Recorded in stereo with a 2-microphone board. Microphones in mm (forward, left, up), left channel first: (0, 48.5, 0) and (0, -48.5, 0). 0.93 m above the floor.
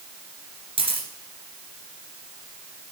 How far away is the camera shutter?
About 2.5 m.